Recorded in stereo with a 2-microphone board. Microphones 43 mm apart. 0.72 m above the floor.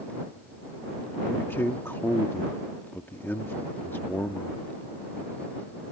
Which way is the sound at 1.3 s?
60° left (ahead or behind).